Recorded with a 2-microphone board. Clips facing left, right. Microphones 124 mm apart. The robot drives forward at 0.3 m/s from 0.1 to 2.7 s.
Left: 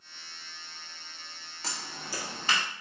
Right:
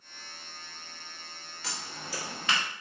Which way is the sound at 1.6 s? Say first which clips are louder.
Left 1 dB; 40° left (ahead or behind).